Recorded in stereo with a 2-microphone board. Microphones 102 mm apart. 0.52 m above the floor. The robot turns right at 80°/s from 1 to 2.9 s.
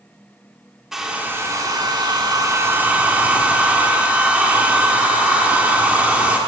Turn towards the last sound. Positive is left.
turn(degrees=-20)